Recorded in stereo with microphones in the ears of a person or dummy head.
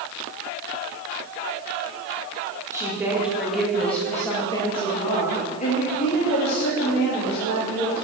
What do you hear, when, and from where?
2.7 s a woman speaking: 5° right (ahead or behind), 2.5 m; by 8.1 s 75° left (ahead or behind), 3.5 m